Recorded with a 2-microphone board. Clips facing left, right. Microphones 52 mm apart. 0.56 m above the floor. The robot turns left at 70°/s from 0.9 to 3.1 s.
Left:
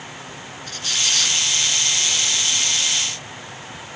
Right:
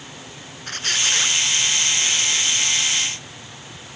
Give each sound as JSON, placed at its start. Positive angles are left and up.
{"t": 0.7, "sound": "a squeak", "azimuth_deg": -135, "distance_m": 1.3}